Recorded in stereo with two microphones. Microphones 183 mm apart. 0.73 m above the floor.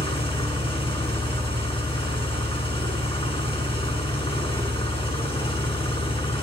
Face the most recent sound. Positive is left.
turn(degrees=30)  # may be behind; listen again after turning